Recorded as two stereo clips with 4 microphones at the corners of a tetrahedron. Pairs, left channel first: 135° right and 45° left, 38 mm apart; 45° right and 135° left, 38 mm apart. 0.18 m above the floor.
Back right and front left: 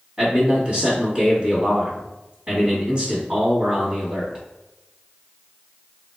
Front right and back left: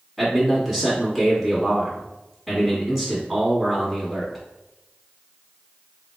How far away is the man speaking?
About 1.5 m.